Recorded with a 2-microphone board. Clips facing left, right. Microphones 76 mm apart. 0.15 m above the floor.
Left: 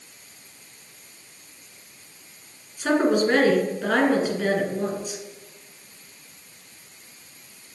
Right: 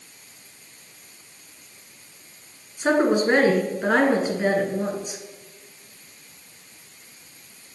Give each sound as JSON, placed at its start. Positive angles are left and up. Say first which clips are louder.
{"t": 2.8, "sound": "a woman speaking", "louder": "right 1 dB", "side_deg": -25, "distance_m": 1.5}